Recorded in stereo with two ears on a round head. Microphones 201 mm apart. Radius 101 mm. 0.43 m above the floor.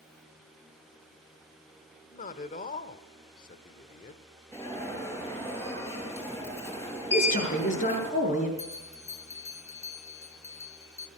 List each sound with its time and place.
2.1 s a man speaking: 35° left (ahead or behind), 1.2 m
4.5 s an alarm: 10° left (ahead or behind), 9 m
7.1 s a man speaking: 35° left (ahead or behind), 7 m
8.6 s a bell: 15° left (ahead or behind), 3 m